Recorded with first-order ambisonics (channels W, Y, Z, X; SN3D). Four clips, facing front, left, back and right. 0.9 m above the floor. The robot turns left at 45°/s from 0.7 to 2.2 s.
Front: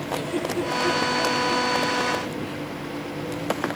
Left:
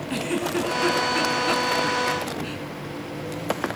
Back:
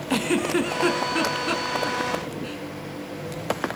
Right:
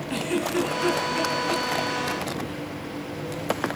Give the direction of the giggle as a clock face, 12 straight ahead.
6 o'clock.